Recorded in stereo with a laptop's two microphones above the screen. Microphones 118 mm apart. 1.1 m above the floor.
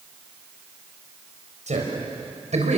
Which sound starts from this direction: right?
A man speaking, at 1.7 s.